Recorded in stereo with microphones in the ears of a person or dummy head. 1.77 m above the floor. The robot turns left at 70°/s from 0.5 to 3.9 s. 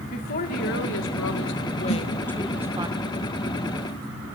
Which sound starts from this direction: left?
A snare drum, at 1.9 s.